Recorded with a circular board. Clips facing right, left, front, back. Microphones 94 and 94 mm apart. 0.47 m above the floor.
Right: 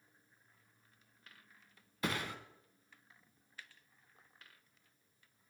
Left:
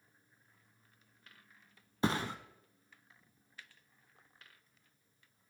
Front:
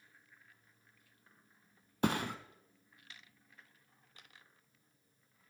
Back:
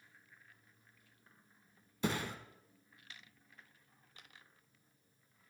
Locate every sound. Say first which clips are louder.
2.0 s a thud: left 5 dB, front 4 dB; 30° left, 0.8 m